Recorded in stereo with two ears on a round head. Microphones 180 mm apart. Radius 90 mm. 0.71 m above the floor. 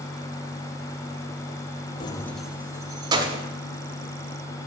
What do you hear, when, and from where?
2.0 s keys jangling: 25° left (ahead or behind), 0.5 m; by 3.4 s 25° right (ahead or behind), 1.3 m